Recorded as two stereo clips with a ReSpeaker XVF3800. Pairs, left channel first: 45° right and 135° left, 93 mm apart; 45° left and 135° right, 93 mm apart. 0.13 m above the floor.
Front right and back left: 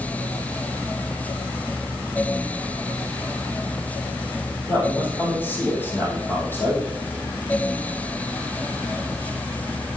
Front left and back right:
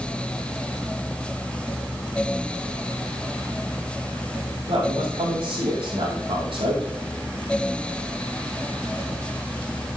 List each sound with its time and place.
4.7 s a man speaking: 115° right, 4 m